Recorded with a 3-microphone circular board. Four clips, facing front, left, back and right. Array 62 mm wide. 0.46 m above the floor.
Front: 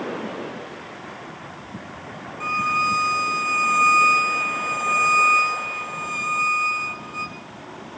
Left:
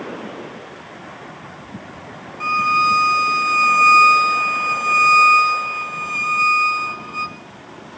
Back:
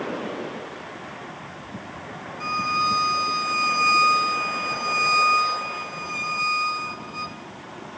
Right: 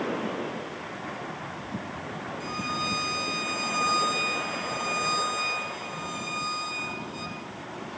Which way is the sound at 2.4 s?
75° left.